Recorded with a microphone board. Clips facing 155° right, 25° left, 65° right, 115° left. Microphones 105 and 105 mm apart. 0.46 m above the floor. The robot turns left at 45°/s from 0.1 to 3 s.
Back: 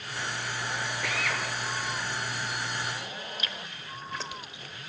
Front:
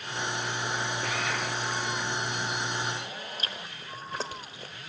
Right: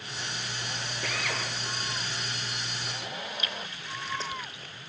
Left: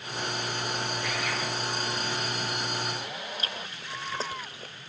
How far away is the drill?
About 8 m.